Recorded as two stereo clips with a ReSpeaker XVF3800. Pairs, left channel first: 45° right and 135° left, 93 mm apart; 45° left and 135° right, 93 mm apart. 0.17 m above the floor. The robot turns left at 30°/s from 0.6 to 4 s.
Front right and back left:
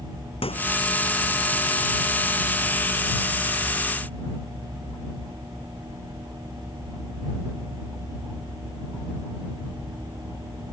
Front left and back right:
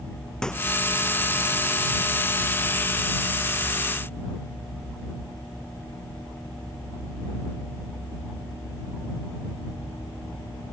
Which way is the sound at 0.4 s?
35° right.